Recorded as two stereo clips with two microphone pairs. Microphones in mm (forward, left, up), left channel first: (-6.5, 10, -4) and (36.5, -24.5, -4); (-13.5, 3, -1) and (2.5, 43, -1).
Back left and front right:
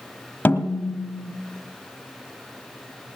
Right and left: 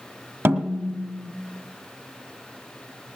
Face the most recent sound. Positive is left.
turn(degrees=85)